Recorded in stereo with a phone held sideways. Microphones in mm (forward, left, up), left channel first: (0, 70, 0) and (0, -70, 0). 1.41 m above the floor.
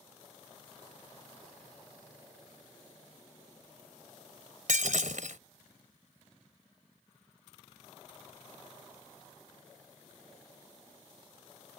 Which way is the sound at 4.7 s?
75° right (ahead or behind).